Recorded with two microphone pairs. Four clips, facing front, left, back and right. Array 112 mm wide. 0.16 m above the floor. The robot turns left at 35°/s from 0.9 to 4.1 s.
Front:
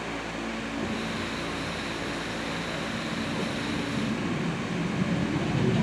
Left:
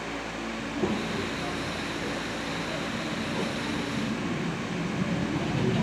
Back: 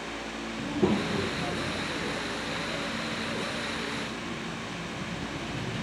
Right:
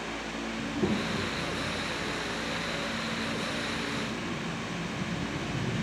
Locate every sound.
0.6 s a child speaking: 165° left; by 5.8 s 50° left